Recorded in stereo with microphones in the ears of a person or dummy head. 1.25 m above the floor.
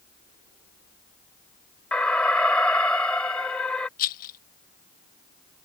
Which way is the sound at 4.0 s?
45° left (ahead or behind).